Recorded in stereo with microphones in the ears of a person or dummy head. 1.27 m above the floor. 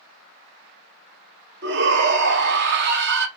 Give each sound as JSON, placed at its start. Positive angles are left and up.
{"t": 1.6, "sound": "a shout", "side_deg": -65, "distance_m": 1.3}